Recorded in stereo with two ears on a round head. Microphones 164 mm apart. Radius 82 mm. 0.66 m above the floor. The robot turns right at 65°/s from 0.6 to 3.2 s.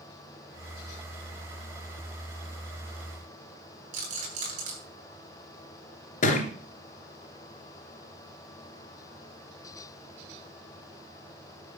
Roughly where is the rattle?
Right.